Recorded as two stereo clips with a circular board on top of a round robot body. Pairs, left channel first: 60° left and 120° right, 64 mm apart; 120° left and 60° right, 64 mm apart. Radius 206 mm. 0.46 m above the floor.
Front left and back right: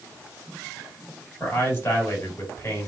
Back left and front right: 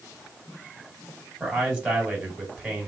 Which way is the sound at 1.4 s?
15° left.